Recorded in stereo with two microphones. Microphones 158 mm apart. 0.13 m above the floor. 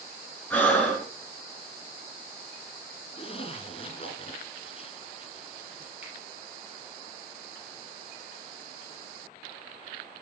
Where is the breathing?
10° left (ahead or behind), 1.9 m.